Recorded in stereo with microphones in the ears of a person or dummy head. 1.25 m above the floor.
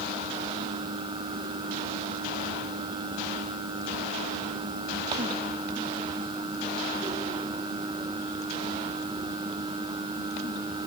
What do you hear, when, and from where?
Only background noise.